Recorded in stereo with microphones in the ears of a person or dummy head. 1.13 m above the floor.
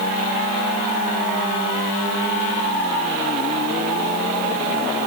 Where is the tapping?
I don't hear tapping.